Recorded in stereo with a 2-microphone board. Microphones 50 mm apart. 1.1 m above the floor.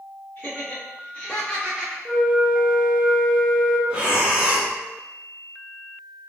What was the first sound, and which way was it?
Laughter, 35° left (ahead or behind).